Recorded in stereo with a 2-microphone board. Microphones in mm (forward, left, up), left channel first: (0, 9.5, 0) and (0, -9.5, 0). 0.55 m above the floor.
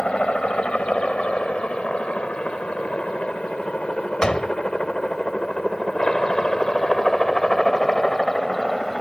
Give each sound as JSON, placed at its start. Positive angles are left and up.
{"t": 0.0, "sound": "a helicopter", "side_deg": 55}
{"t": 4.2, "sound": "a door slam", "side_deg": 40}